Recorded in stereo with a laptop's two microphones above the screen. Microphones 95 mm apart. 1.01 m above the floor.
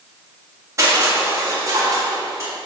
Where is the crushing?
30° right (ahead or behind), 1.8 m.